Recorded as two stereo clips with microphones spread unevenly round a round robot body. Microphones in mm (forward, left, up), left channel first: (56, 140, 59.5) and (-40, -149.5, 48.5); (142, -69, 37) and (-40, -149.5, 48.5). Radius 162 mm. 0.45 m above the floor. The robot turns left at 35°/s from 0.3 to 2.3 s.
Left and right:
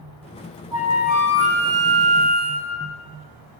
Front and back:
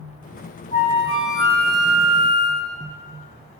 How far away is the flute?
About 1.8 m.